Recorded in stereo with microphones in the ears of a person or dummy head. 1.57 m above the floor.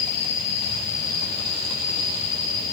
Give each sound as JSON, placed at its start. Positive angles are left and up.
{"t": 0.0, "sound": "an insect", "side_deg": 55, "distance_m": 4.0}